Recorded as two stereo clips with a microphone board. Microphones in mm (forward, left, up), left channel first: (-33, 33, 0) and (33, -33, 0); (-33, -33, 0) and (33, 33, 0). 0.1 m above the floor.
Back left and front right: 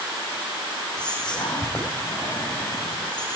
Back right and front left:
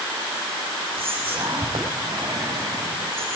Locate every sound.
1.0 s whispering: 55° left, 5.5 m